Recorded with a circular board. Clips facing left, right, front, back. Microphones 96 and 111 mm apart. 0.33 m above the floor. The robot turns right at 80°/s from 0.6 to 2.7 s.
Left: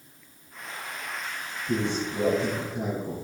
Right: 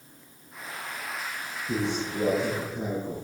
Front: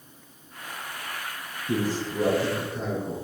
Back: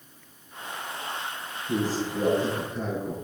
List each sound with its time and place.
1.7 s a man speaking: 5° left, 3.5 m; by 3.1 s 90° left, 3.5 m